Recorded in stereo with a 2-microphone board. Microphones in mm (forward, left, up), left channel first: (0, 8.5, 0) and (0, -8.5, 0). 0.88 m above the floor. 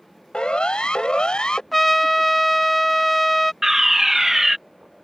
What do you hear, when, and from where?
0.3 s a siren: 70° left (ahead or behind); by 1.6 s 60° left (ahead or behind)
1.7 s a trumpet: centre (ahead or behind)
3.6 s a fire alarm: 25° right (ahead or behind)